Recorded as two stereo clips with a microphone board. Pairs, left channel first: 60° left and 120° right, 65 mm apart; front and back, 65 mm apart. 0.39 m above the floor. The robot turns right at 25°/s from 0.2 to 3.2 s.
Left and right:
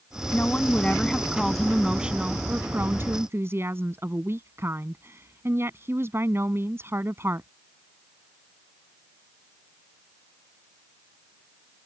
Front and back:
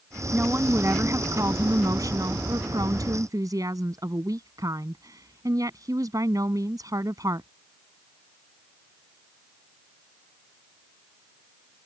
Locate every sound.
0.3 s a woman speaking: 120° left; by 7.5 s 165° right